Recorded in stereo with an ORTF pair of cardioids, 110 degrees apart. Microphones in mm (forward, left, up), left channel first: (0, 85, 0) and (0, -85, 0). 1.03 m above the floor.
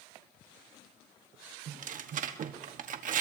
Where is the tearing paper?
50° right, 1.2 m.